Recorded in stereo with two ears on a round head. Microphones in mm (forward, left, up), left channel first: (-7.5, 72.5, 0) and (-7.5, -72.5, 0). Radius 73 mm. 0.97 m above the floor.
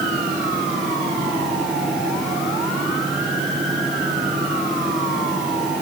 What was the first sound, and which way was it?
Only background noise.